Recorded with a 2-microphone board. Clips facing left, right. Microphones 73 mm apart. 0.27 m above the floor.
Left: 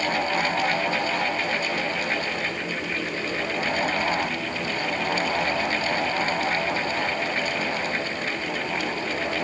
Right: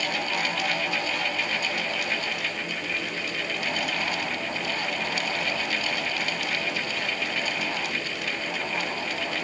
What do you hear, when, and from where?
Only background noise.